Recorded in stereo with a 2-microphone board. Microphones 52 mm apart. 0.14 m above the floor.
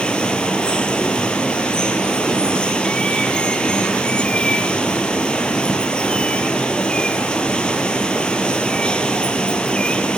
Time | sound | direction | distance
0.0 | running water | 20° left (ahead or behind) | 3.5 m